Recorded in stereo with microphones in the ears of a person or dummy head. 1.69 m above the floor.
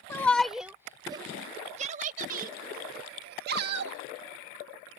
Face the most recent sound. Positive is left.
turn(degrees=-55)  # may be behind; listen again after turning